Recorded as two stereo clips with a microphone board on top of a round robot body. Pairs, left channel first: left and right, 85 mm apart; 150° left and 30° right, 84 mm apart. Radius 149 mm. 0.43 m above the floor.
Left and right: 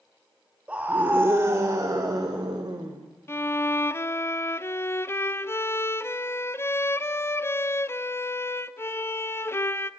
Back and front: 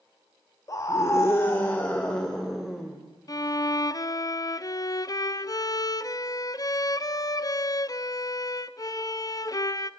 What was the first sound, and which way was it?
A scream, 165° right.